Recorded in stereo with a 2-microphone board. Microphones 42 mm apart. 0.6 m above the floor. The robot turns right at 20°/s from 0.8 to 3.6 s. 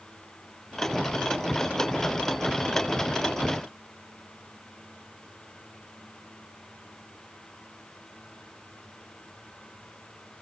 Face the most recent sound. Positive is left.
No sound to turn to.